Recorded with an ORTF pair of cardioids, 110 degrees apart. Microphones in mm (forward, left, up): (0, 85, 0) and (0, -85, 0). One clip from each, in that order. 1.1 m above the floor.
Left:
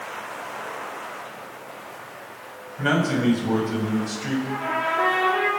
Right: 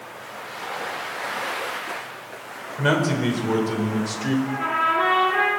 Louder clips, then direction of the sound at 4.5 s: Right 3 dB; 35° right.